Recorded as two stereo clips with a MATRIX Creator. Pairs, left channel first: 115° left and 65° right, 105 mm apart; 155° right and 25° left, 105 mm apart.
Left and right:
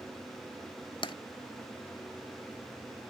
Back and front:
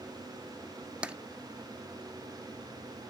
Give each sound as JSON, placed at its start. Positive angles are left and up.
{"t": 1.0, "sound": "tapping", "azimuth_deg": 100, "distance_m": 0.5}